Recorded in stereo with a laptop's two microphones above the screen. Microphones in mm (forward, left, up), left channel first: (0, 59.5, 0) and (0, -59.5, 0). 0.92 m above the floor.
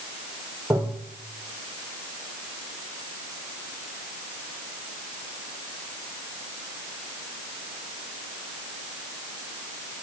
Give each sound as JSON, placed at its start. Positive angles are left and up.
{"t": 0.7, "sound": "tapping", "side_deg": -20, "distance_m": 3.0}